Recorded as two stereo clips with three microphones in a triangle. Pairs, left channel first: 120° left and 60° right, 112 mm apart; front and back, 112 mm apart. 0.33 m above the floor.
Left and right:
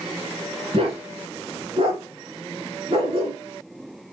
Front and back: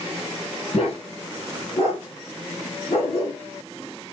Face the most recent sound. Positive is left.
turn(degrees=-30)